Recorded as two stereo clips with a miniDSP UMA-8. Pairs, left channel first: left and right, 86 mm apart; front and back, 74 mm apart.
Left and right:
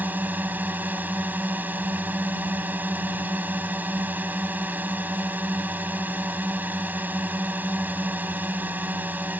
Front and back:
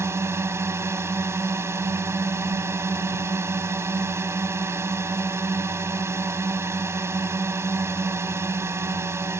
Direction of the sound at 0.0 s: 150° right.